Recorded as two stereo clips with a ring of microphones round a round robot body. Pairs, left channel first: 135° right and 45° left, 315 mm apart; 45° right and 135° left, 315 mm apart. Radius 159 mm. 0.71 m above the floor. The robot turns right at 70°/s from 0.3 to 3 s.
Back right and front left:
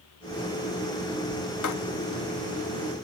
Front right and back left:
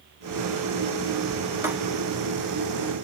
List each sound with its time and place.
1.6 s writing: 145° right, 1.0 m; by 1.7 s 135° right, 1.0 m